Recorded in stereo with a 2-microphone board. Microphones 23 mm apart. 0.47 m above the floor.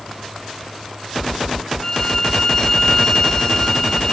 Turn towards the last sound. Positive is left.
turn(degrees=20)  # may be behind; listen again after turning